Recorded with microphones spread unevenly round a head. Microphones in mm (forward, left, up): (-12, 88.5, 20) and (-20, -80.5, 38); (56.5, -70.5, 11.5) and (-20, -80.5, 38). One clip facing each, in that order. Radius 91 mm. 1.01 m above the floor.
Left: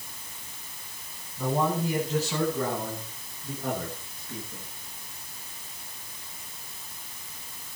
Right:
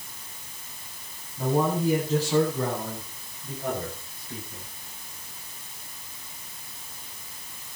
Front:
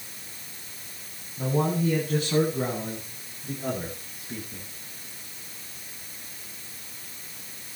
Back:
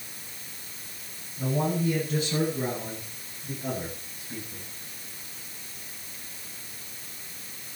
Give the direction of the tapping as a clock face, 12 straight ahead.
I don't hear tapping.